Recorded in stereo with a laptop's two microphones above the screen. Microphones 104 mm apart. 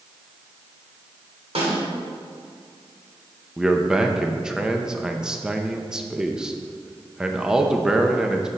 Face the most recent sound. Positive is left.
turn(degrees=-5)  # may be behind; listen again after turning